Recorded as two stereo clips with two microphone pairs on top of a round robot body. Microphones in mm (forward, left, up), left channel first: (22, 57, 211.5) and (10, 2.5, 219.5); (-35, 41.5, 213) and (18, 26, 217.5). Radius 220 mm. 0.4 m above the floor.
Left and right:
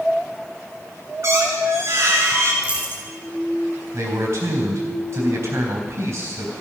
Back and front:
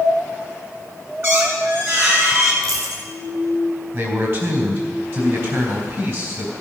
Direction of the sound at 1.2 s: 65° right.